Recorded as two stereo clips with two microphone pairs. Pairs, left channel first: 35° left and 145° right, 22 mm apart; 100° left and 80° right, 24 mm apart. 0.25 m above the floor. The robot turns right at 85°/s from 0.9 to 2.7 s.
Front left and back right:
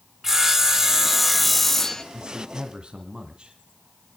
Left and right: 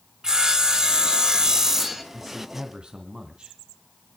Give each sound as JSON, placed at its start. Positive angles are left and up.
{"t": 0.2, "sound": "sawing", "azimuth_deg": -100, "distance_m": 1.4}
{"t": 2.1, "sound": "a man speaking", "azimuth_deg": -170, "distance_m": 2.0}